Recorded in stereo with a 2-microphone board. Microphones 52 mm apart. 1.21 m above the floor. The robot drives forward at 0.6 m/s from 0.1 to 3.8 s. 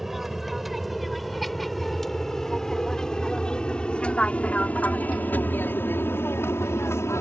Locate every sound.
0.0 s an aircraft: 5° right (ahead or behind); by 7.2 s 60° left (ahead or behind)